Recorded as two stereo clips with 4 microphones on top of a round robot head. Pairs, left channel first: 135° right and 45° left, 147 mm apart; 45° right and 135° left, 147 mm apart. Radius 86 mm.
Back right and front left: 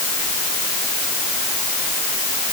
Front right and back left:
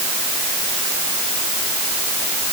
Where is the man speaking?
I don't hear a man speaking.